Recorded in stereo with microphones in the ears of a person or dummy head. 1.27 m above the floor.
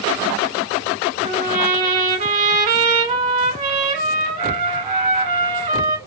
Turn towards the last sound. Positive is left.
turn(degrees=-40)  # may be behind; listen again after turning